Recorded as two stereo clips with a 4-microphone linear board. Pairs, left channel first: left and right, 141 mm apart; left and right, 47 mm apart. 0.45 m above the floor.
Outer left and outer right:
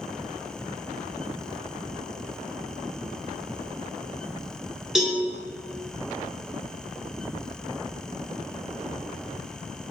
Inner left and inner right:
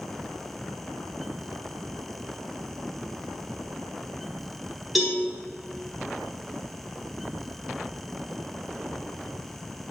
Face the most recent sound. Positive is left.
turn(degrees=-5)  # may be behind; listen again after turning